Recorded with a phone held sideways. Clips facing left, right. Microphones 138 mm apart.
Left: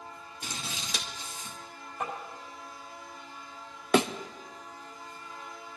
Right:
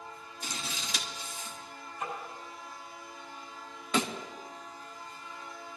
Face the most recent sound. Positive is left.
turn(degrees=70)  # may be behind; listen again after turning